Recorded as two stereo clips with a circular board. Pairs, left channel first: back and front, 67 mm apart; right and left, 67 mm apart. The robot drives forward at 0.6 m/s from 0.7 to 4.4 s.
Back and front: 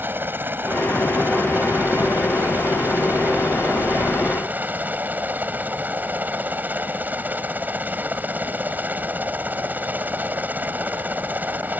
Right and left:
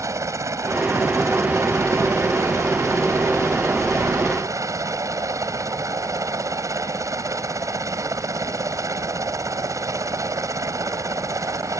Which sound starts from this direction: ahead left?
A helicopter, at 0.0 s.